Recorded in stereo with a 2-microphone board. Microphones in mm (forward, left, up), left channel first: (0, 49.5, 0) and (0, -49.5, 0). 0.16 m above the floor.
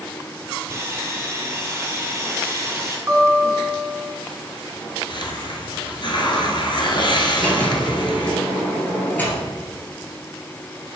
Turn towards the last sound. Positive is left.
turn(degrees=15)  # may be behind; listen again after turning